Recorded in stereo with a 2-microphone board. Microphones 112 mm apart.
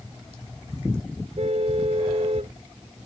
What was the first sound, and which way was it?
A car horn, 60° right (ahead or behind).